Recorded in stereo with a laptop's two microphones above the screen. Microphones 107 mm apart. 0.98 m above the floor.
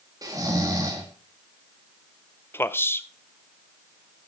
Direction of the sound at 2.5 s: 20° left (ahead or behind).